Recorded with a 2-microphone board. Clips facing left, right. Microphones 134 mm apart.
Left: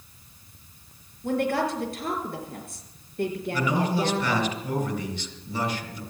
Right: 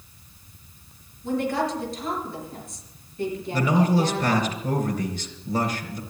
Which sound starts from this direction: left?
A woman speaking, at 1.2 s.